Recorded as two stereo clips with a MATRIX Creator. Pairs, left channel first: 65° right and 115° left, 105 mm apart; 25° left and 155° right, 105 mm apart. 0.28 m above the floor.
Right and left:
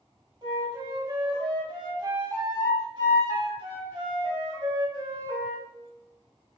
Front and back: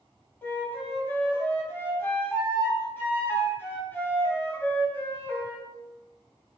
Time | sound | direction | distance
0.4 | a flute | 85° left | 0.6 m